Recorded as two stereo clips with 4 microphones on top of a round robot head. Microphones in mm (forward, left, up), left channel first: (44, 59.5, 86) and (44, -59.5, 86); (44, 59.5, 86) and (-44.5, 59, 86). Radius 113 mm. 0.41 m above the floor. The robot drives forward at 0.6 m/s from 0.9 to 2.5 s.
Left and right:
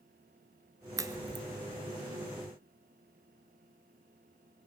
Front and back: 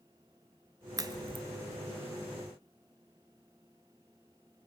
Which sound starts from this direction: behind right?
A crack, at 1.0 s.